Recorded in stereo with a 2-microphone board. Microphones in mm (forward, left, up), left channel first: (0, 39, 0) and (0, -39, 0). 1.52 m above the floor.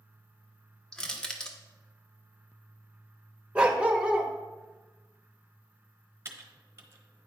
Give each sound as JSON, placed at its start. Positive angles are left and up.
{"t": 0.9, "sound": "crushing", "side_deg": 10, "distance_m": 1.1}
{"t": 3.5, "sound": "a dog barking", "side_deg": -15, "distance_m": 0.9}
{"t": 6.2, "sound": "typing on a keyboard", "side_deg": -35, "distance_m": 1.1}